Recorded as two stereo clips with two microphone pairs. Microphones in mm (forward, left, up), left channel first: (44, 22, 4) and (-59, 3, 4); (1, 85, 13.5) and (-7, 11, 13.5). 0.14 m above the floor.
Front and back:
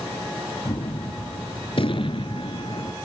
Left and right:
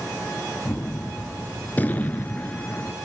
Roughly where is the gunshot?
Ahead left.